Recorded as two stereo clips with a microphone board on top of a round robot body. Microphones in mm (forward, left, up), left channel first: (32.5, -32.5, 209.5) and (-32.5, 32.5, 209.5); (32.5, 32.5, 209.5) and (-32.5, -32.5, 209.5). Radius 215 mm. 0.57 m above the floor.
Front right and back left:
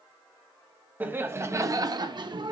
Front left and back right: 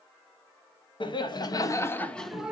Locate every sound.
1.0 s laughter: 65° left, 1.9 m; by 2.5 s 150° left, 1.3 m